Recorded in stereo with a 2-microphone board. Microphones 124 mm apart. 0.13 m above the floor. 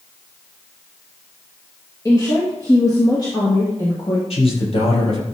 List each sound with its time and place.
2.0 s a woman speaking: 25° left (ahead or behind), 2 m; by 4.2 s 35° left (ahead or behind), 3.5 m
4.3 s a man speaking: 55° left (ahead or behind), 4 m